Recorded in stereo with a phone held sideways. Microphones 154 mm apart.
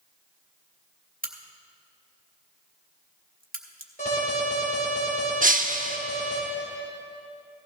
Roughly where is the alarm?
Left.